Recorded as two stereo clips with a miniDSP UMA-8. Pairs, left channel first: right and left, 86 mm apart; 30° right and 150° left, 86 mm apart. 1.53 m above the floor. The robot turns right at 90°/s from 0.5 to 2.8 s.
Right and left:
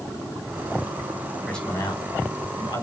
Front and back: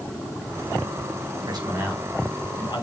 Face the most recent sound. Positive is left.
turn(degrees=-60)